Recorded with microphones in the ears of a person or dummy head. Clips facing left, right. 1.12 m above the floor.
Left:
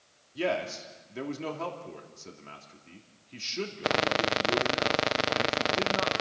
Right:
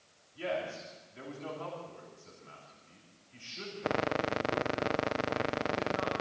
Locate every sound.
0.3 s a man speaking: 75° left (ahead or behind), 3 m